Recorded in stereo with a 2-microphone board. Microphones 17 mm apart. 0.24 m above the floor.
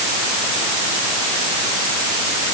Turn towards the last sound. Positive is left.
No sound to turn to.